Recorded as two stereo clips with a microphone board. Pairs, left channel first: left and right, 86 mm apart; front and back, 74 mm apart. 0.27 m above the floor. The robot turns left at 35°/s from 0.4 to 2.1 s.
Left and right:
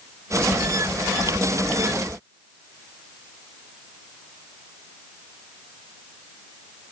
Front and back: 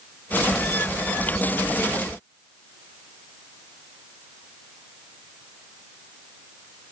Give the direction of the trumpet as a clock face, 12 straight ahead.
No trumpet in this recording.